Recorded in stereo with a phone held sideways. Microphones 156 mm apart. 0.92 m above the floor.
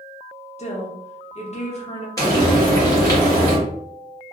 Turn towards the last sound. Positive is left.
turn(degrees=20)  # may be behind; listen again after turning